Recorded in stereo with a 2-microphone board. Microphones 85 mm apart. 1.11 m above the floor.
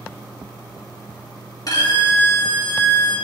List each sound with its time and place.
1.7 s a violin: 50° left (ahead or behind), 3 m